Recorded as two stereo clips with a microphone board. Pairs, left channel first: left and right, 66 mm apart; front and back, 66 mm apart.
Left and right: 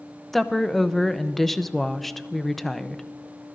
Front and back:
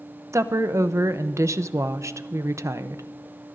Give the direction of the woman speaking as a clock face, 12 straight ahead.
6 o'clock.